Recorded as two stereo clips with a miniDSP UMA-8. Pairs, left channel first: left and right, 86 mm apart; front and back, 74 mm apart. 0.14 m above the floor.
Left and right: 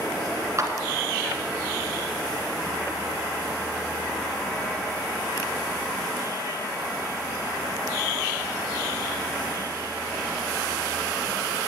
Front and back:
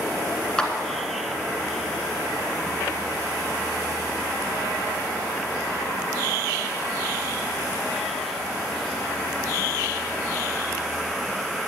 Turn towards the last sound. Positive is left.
turn(degrees=-75)